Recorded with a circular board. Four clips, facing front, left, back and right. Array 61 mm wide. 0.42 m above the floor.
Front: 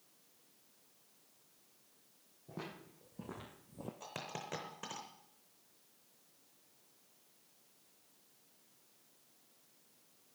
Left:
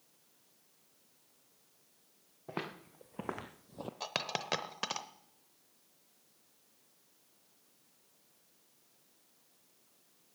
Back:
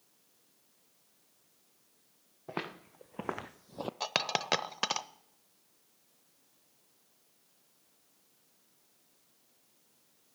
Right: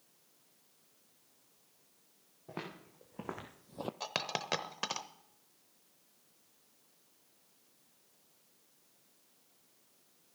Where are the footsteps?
160° left, 2.5 m; by 3.9 s 155° right, 0.5 m.